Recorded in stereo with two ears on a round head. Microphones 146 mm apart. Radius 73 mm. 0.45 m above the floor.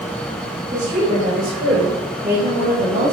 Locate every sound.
0.7 s a woman speaking: 50° right (ahead or behind), 2 m; by 3.1 s 55° right (ahead or behind), 2.5 m